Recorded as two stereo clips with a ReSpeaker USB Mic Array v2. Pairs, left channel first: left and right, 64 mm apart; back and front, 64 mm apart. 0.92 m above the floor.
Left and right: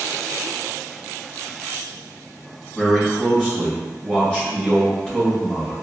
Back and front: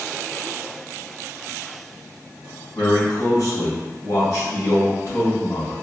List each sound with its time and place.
2.8 s a man speaking: 160° left, 2.0 m